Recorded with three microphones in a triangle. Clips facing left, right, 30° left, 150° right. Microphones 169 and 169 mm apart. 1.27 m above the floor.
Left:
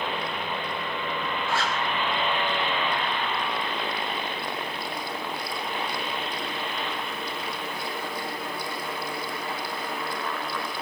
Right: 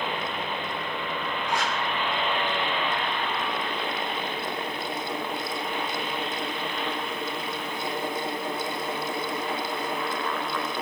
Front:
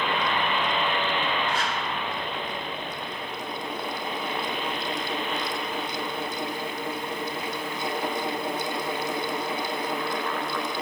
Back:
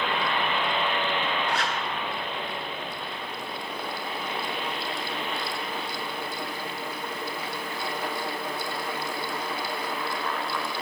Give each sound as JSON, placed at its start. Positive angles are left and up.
{"t": 1.5, "sound": "a zipper", "azimuth_deg": -160, "distance_m": 2.0}